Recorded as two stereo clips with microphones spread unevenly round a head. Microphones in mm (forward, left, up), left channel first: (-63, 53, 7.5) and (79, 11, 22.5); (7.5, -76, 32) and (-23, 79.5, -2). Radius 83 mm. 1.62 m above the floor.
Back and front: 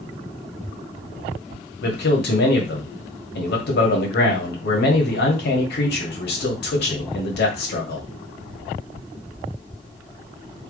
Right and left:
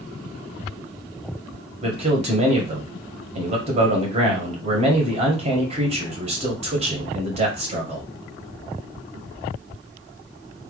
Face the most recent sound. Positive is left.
turn(degrees=155)